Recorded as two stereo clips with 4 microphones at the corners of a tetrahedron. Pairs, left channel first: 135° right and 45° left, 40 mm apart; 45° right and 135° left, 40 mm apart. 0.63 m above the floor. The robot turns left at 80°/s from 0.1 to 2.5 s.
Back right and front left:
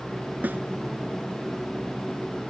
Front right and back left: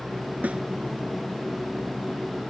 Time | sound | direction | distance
0.4 | a snare drum | 85° left | ?